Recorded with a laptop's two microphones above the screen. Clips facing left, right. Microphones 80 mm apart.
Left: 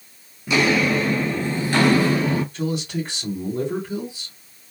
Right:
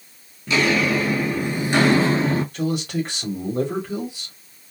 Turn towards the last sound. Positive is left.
turn(degrees=-55)  # may be behind; listen again after turning